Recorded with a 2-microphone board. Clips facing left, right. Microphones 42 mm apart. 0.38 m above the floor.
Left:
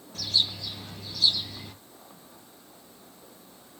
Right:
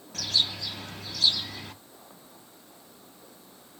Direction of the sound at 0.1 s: 75° right (ahead or behind).